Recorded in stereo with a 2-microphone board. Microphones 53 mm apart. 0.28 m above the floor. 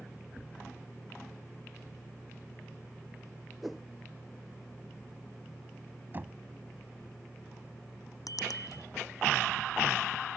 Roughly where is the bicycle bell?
Left.